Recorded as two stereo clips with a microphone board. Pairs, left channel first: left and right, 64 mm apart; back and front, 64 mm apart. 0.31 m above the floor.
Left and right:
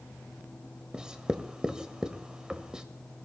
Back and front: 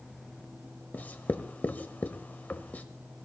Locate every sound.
0.9 s writing: 155° right, 1.1 m